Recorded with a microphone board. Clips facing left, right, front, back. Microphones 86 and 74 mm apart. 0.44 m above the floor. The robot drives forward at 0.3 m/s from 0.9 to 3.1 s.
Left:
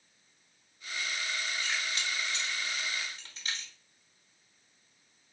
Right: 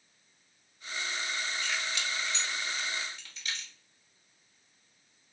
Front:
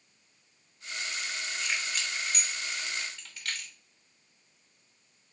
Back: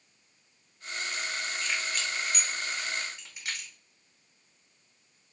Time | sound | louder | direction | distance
1.6 | keys jangling | even, even | 70° left | 0.8 m